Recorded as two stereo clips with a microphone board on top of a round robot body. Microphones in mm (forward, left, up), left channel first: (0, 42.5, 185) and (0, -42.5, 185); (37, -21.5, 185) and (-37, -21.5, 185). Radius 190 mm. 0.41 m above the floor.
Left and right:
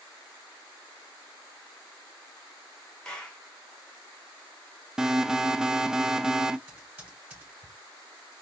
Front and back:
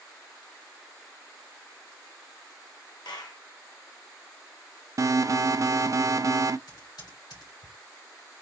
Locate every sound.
3.0 s a clap: 10° left, 1.3 m
5.0 s an alarm: 170° right, 0.5 m
6.7 s typing on a keyboard: 15° right, 2.5 m